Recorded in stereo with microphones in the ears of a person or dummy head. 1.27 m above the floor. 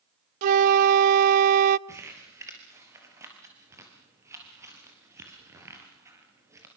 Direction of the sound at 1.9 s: 15° right (ahead or behind).